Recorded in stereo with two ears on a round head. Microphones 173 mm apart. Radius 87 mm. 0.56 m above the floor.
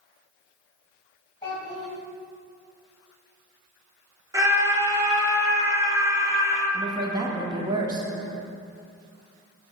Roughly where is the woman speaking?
Centre.